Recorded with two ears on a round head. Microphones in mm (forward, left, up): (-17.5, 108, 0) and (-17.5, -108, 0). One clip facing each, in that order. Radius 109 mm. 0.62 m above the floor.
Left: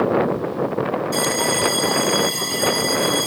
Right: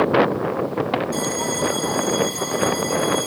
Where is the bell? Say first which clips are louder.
Left 2 dB; 45° left (ahead or behind).